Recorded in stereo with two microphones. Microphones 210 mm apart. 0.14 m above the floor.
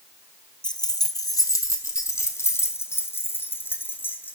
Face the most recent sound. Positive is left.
turn(degrees=10)  # may be behind; listen again after turning